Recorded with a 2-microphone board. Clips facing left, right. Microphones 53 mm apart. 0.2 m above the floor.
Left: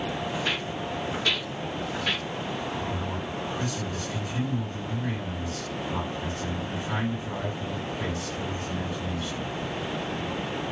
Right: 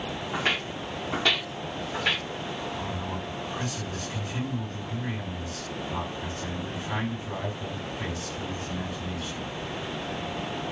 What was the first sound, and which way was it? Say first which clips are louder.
Footsteps: right 1 dB; 50° right (ahead or behind).